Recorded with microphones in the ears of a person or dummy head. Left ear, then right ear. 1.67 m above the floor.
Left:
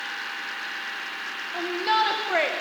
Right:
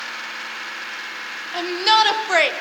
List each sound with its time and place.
1.5 s a shout: 85° right, 1.8 m